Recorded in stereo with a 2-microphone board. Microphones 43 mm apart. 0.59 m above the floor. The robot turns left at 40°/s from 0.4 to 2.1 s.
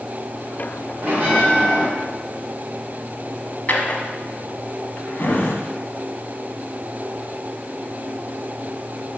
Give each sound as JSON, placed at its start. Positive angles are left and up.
{"t": 1.0, "sound": "a bell", "azimuth_deg": -135, "distance_m": 2.5}
{"t": 3.7, "sound": "a drawer", "side_deg": 40, "distance_m": 1.1}